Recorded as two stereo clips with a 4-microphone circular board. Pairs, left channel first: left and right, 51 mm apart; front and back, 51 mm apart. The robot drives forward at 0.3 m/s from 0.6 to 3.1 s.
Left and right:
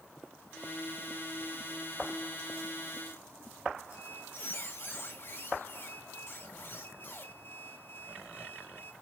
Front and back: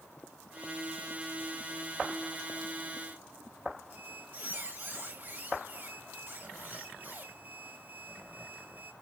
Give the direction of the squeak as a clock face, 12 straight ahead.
8 o'clock.